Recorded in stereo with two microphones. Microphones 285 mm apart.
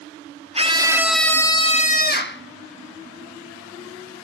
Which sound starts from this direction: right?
A scream, at 0.6 s.